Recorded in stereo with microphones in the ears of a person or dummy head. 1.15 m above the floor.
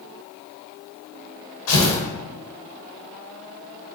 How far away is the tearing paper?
About 1.1 m.